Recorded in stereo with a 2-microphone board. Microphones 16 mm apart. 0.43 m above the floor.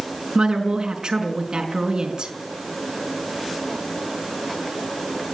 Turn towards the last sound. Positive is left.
turn(degrees=-50)  # may be behind; listen again after turning